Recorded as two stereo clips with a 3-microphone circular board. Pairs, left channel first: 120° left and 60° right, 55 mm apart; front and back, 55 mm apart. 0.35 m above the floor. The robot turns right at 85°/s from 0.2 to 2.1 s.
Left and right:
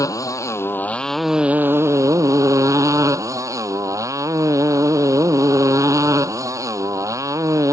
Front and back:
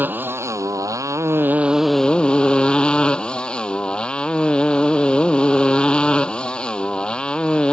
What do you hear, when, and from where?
0.0 s a motorcycle: 125° left; by 7.7 s 75° right